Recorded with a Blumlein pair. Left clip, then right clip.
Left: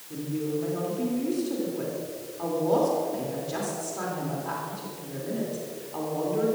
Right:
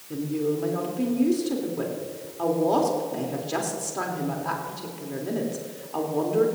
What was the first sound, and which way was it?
A woman speaking, 20° right.